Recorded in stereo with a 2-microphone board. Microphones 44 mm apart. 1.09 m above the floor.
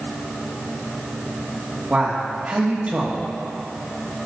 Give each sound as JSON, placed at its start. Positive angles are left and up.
{"t": 1.9, "sound": "a man speaking", "side_deg": -30, "distance_m": 1.4}